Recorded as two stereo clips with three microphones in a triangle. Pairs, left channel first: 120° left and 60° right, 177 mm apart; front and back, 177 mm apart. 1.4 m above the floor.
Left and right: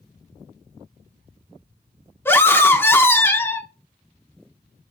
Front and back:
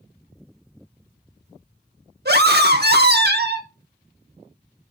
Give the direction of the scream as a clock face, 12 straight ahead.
5 o'clock.